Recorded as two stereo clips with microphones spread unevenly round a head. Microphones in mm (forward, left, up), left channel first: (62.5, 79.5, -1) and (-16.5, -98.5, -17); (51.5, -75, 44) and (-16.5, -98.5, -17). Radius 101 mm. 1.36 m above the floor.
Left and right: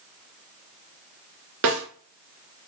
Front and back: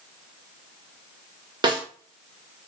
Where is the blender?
I don't hear a blender.